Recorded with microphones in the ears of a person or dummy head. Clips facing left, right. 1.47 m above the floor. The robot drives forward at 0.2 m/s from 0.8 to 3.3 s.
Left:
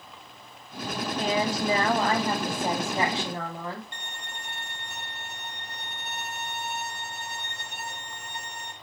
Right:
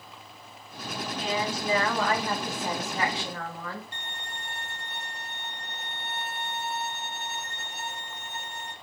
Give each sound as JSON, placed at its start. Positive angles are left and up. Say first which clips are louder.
{"t": 1.2, "sound": "a woman speaking", "louder": "left 4 dB", "side_deg": 40, "distance_m": 0.6}
{"t": 3.9, "sound": "a violin", "louder": "even", "side_deg": 55, "distance_m": 0.8}